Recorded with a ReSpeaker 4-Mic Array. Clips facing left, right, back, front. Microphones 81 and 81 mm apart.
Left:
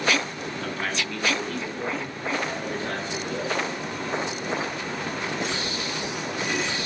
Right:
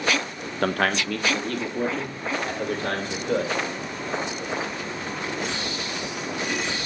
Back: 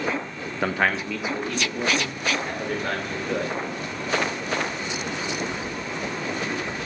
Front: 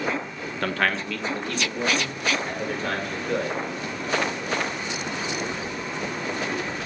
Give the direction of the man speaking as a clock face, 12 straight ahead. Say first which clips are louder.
Right 8 dB, back 2 dB; 4 o'clock.